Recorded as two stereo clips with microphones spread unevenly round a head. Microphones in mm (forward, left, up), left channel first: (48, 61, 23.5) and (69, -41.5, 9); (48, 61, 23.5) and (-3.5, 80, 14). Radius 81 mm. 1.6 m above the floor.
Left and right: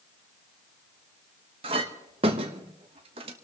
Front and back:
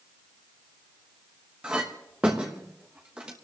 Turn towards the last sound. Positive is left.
turn(degrees=-115)